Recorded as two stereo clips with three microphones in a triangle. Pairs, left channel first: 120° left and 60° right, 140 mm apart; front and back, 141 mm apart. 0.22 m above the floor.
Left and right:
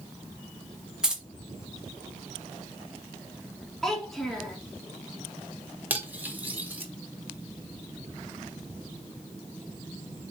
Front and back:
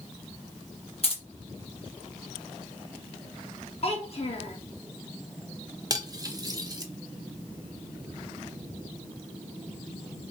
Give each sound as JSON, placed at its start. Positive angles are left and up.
{"t": 1.0, "sound": "keys jangling", "azimuth_deg": 25, "distance_m": 1.0}
{"t": 3.8, "sound": "a child speaking", "azimuth_deg": 35, "distance_m": 1.3}
{"t": 5.9, "sound": "cutlery clinking", "azimuth_deg": -130, "distance_m": 0.7}